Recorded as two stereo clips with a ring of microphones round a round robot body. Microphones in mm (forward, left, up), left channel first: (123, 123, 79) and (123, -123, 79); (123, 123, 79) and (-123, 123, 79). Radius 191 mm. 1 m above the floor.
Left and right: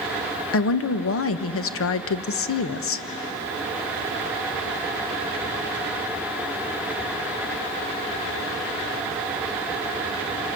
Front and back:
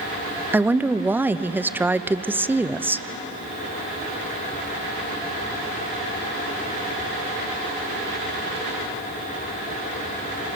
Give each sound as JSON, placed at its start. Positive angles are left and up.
{"t": 0.5, "sound": "a woman speaking", "azimuth_deg": 100, "distance_m": 1.0}